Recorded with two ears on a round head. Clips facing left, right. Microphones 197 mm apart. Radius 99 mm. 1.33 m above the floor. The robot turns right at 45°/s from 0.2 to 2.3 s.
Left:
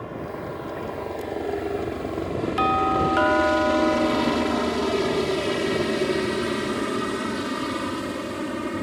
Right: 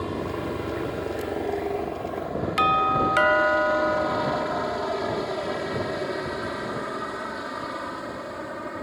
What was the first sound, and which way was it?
A helicopter, 50° right (ahead or behind).